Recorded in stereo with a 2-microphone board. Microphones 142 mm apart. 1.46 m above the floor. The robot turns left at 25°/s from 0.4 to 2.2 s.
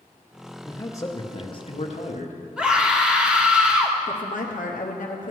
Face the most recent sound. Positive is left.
turn(degrees=65)  # may be behind; listen again after turning